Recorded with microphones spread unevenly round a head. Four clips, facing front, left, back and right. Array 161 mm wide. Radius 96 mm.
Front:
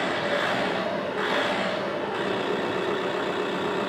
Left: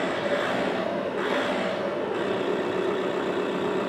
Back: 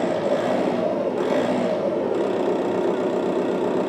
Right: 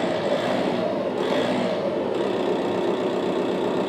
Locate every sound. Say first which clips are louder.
0.0 s an engine running: right 3 dB, back 5 dB; 175° right, 1.6 m